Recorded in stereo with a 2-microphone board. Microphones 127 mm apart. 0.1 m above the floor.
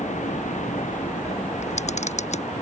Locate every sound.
0.0 s a vehicle: 75° left (ahead or behind)
1.6 s a camera shutter: 65° left (ahead or behind)